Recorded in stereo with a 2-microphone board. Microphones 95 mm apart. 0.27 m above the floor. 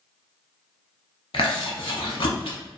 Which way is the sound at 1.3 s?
75° left (ahead or behind).